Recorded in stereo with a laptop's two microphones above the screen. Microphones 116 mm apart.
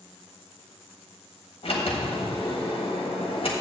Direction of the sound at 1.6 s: 55° left (ahead or behind).